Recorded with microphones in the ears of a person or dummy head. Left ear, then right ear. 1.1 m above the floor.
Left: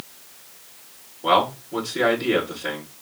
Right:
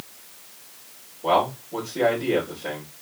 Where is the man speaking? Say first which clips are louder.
Left 2 dB; 35° left (ahead or behind), 2.5 m.